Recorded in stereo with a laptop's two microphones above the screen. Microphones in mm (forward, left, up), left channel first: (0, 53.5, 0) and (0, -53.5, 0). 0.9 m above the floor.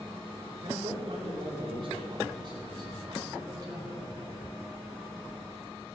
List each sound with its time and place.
0.6 s a man speaking: 60° right (ahead or behind), 3.5 m; by 4.1 s 35° right (ahead or behind), 4.5 m